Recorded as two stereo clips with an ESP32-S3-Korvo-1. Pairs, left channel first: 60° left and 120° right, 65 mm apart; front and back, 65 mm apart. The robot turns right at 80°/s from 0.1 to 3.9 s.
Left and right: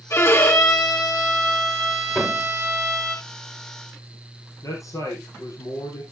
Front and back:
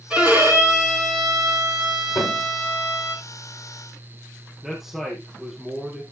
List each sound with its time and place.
0.1 s a violin: 100° left, 4.5 m; by 3.1 s 15° right, 4.5 m
2.1 s a thud: 30° right, 4.5 m; by 2.5 s straight ahead, 4.5 m
4.6 s a man speaking: 95° left, 4 m